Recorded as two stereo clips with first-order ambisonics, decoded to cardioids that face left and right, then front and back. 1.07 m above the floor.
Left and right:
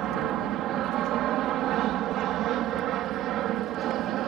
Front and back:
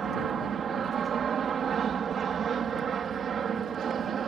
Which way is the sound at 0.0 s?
125° right.